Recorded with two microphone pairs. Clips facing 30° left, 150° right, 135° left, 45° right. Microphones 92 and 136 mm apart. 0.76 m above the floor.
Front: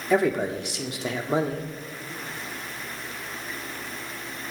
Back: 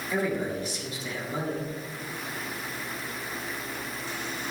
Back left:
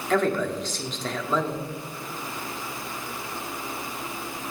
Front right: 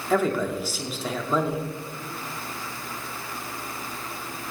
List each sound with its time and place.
0.1 s a man speaking: 40° left, 1.7 m